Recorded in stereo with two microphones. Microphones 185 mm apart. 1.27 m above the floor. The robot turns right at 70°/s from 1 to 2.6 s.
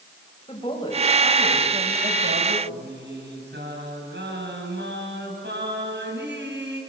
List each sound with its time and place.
0.5 s a woman speaking: 155° left, 8 m; by 2.6 s 95° right, 8 m
2.7 s singing: 80° right, 7 m